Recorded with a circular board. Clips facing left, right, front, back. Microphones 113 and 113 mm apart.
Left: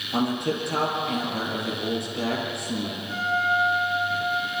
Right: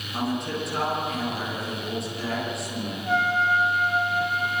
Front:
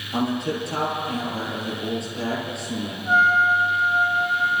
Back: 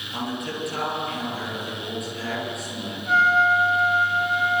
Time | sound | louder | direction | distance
0.1 | a man speaking | left 3 dB, front 6 dB | 60° left | 8 m
3.1 | a trumpet | right 3 dB, even | 75° right | 2.5 m